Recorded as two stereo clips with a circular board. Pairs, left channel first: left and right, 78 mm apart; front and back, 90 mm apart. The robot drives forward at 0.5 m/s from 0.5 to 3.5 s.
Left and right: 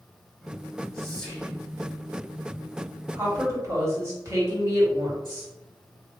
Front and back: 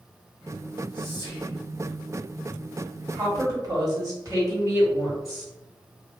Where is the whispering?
15° left, 1.5 m.